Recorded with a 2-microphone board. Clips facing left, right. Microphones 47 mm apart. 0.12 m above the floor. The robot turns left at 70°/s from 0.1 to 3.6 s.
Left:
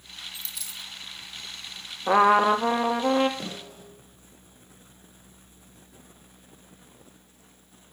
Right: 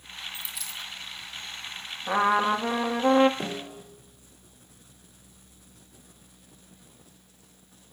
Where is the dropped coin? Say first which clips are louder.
Right 3 dB; 15° right (ahead or behind), 2 m; by 0.9 s 20° left (ahead or behind), 2 m.